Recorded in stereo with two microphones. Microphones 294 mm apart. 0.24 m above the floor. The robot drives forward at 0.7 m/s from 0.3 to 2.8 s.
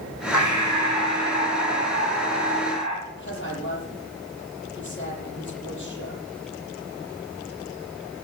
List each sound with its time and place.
0.3 s breathing: 75° left (ahead or behind), 5.5 m; by 3.0 s 60° left (ahead or behind), 6 m
3.1 s a woman speaking: 40° left (ahead or behind), 7.5 m